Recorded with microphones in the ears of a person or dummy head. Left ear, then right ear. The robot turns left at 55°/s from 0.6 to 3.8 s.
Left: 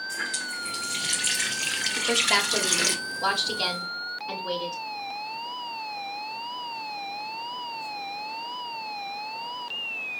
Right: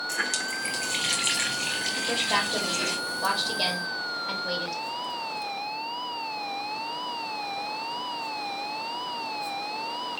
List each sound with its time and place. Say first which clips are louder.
0.1 s a running tap: right 3 dB; 135° right, 0.7 m; by 3.0 s 95° left, 0.7 m
2.0 s a woman speaking: left 4 dB; 95° left, 0.8 m; by 4.8 s 5° right, 0.8 m